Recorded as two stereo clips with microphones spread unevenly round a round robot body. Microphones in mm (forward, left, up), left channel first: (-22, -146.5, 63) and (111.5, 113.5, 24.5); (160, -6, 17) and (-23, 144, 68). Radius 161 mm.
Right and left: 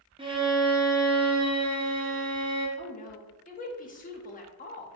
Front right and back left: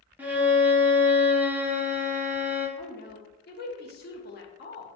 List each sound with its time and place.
0.2 s a violin: 40° left, 0.8 m
2.8 s a woman speaking: 55° right, 0.9 m